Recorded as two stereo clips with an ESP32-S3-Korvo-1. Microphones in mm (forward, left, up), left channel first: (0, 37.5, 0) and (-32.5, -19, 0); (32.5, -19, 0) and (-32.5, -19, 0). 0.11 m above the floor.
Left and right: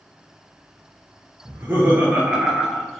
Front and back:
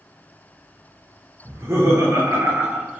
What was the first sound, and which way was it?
Laughter, 160° right.